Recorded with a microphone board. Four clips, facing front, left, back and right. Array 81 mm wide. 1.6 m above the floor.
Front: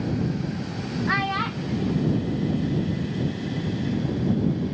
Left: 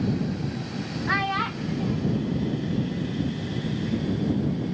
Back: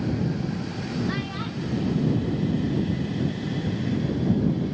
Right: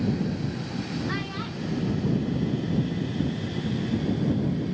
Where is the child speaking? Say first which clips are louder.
Left 6 dB, front 5 dB; 45° left; by 3.2 s 110° left.